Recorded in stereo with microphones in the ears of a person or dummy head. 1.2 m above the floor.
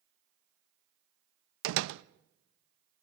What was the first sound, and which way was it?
A door slam, 75° right (ahead or behind).